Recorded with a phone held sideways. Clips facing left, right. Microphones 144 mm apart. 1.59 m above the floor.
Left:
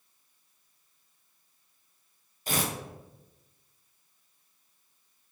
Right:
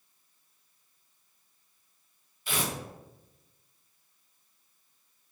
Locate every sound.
2.5 s tearing paper: 40° left (ahead or behind), 0.6 m